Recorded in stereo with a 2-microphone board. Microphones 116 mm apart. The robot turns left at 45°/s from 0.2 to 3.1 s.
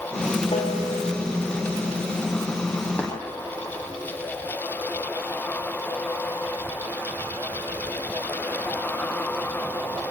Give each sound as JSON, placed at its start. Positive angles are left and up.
{"t": 0.5, "sound": "a piano", "side_deg": 55, "distance_m": 4.0}
{"t": 3.0, "sound": "tapping", "side_deg": 15, "distance_m": 5.0}